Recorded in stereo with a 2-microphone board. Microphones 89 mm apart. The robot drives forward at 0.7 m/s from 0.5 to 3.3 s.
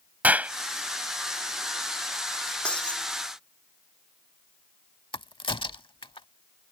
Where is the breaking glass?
10° left (ahead or behind).